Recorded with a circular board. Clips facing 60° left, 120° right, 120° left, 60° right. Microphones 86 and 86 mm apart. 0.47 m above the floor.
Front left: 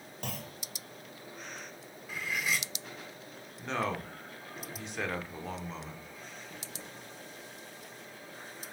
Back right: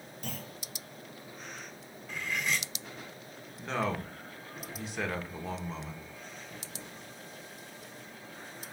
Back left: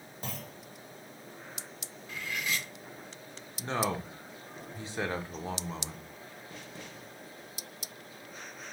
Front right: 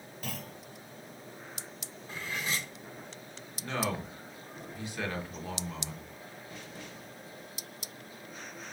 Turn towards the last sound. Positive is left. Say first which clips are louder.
# back right 1 dB, back left 2 dB
turn(degrees=150)